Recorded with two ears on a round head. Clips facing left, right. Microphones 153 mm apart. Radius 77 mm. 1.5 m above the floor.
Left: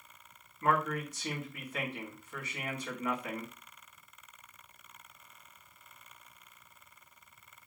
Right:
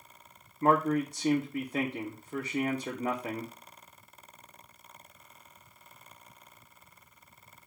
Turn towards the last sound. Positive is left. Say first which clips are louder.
# right 6 dB
turn(degrees=-30)  # may be behind; listen again after turning